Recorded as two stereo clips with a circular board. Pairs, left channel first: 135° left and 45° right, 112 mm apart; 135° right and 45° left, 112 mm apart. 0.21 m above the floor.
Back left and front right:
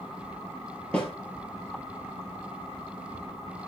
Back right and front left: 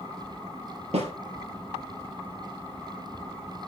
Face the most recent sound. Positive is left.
turn(degrees=60)